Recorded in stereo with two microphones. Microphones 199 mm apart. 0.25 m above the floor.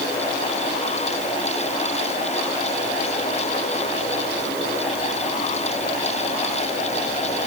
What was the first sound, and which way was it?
Only background noise.